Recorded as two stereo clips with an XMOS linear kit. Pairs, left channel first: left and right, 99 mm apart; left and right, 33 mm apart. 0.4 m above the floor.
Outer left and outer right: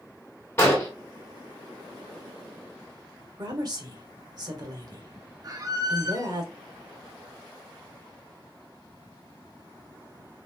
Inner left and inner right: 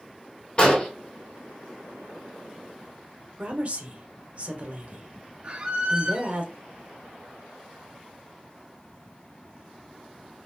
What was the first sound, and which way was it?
An explosion, 30° left (ahead or behind).